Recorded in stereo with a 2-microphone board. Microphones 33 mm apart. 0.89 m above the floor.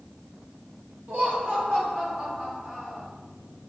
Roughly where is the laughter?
Right.